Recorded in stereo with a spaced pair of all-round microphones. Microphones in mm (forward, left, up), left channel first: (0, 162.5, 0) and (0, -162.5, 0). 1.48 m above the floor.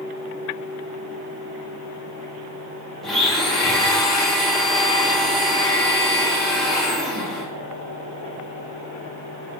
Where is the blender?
Centre (ahead or behind), 0.9 m.